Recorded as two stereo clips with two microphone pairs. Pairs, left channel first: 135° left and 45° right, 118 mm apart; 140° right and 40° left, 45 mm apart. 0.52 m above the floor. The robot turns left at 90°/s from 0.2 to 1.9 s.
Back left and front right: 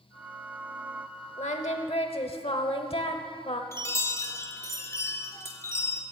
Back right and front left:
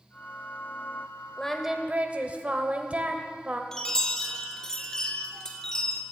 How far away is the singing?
About 0.8 m.